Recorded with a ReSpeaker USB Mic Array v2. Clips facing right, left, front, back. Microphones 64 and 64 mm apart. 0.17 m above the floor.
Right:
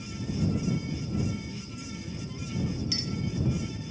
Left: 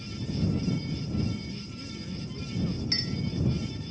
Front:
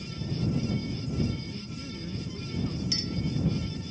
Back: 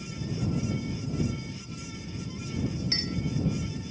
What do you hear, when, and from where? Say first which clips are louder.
1.5 s a man speaking: even, front 2 dB; 25° left
2.9 s a clink: even, back 1 dB; 135° left